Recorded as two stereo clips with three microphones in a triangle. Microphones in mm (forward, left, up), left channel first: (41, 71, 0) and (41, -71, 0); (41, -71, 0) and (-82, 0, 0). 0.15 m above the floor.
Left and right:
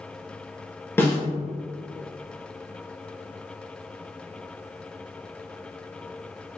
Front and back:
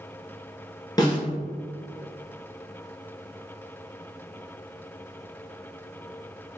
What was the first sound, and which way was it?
A snare drum, 20° left.